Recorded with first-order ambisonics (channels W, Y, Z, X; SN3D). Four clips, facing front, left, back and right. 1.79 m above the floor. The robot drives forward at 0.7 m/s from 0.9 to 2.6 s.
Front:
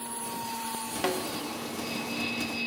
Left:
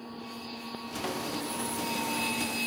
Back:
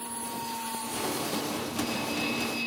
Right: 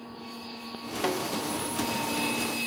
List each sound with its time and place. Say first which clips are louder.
1.0 s a snare drum: right 6 dB, front 4 dB; 40° right, 1.1 m; by 1.3 s 50° right, 1.0 m